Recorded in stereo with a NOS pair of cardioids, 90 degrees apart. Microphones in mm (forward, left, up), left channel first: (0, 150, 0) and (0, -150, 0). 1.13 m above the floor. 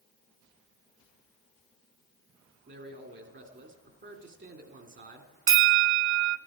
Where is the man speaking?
40° right, 2.5 m.